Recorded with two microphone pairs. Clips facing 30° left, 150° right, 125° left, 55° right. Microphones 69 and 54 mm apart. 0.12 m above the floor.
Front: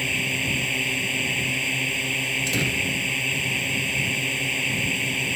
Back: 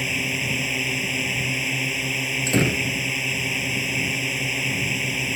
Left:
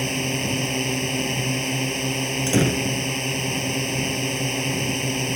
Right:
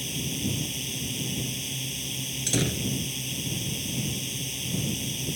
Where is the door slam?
165° left.